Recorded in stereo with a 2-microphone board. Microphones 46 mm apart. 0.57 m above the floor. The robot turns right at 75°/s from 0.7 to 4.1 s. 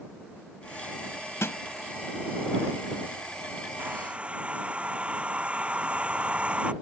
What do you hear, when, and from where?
1.4 s a snare drum: 75° left (ahead or behind); by 1.6 s 65° left (ahead or behind)
3.8 s a hair dryer: 45° right (ahead or behind); by 6.7 s 25° right (ahead or behind)